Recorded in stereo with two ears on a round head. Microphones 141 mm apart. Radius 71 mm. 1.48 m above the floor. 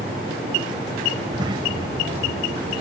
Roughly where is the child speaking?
Right.